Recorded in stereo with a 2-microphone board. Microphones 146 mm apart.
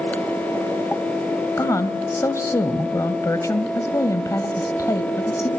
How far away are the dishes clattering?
No dishes clattering in this recording.